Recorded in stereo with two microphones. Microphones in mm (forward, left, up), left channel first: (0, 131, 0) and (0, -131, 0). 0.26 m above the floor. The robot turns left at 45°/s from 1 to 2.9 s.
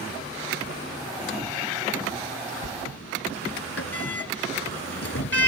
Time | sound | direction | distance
2.6 | a sliding door | 70° left (ahead or behind) | ?